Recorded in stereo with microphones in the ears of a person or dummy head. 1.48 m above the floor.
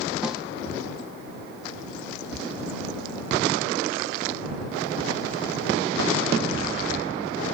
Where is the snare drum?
5° right (ahead or behind).